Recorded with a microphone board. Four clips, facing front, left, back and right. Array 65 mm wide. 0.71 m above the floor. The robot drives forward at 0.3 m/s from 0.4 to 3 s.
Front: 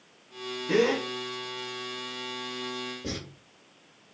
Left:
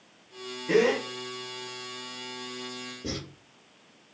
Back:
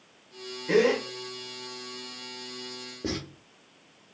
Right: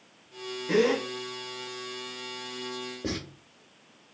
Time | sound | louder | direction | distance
0.7 | a gasp | left 1 dB, back 2 dB | 145° left | 1.1 m
3.0 | writing | right 2 dB, back 7 dB | 145° right | 0.9 m